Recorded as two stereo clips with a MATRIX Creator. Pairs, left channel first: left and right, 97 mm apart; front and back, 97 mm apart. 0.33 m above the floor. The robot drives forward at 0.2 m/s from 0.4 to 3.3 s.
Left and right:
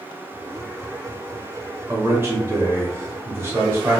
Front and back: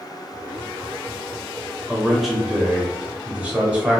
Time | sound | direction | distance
1.9 | a man speaking | 85° right | 1.1 m